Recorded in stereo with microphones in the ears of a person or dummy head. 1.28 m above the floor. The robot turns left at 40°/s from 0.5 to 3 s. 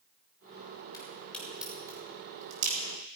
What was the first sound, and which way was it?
A crack, 30° left (ahead or behind).